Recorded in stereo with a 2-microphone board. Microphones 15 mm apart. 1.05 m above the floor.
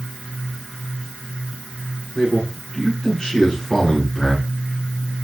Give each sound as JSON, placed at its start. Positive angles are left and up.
{"t": 2.1, "sound": "a man speaking", "side_deg": 35, "distance_m": 9.0}